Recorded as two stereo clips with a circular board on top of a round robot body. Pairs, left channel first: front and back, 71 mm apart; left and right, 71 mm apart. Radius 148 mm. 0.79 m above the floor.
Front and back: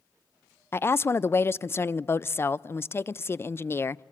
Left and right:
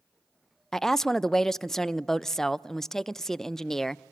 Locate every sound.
0.7 s a woman speaking: 10° left, 0.5 m